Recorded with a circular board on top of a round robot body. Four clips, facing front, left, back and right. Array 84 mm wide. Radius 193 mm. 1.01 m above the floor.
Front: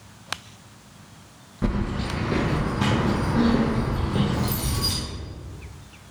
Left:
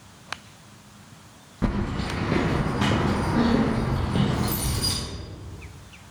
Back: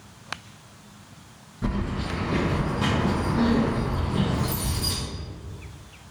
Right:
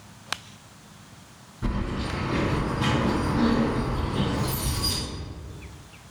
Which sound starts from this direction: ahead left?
Keys jangling, at 1.6 s.